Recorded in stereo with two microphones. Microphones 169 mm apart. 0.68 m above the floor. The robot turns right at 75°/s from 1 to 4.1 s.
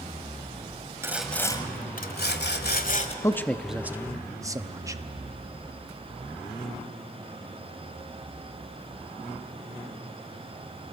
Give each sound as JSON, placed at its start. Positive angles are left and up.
{"t": 1.0, "sound": "sawing", "azimuth_deg": -15, "distance_m": 1.7}
{"t": 3.2, "sound": "a man speaking", "side_deg": 20, "distance_m": 0.8}